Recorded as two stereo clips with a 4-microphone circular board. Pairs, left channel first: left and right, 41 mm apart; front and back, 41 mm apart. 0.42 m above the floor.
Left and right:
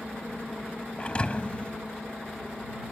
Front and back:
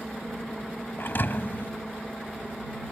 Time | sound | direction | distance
1.0 | a thud | 30° left | ?